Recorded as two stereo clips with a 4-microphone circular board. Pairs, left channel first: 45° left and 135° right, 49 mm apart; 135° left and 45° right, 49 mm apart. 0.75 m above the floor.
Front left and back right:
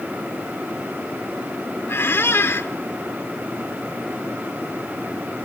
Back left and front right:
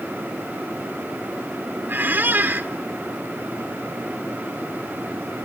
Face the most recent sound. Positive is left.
turn(degrees=5)